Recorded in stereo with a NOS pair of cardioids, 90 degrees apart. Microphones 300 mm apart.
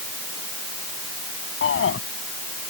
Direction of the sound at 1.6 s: 45° left.